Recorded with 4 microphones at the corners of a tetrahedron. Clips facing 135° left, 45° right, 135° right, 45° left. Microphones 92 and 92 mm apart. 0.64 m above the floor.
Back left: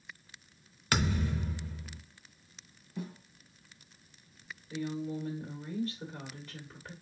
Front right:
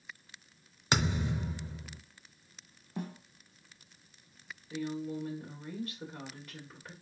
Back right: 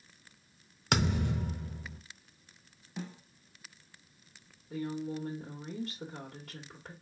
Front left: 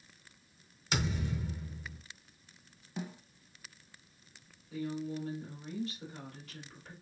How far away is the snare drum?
About 0.7 m.